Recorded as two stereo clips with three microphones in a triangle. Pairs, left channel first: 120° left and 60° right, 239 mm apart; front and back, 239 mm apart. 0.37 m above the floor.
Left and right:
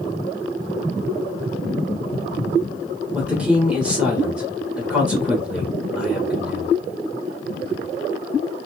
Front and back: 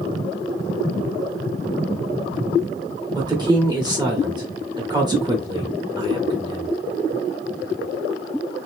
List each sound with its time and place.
3.1 s a woman speaking: 135° right, 1.0 m